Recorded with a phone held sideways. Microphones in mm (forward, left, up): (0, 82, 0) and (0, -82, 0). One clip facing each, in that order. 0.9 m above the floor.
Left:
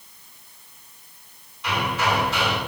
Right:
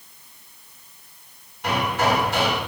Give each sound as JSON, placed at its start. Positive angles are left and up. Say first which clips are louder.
{"t": 1.6, "sound": "hammering", "louder": "right 3 dB", "side_deg": -55, "distance_m": 9.5}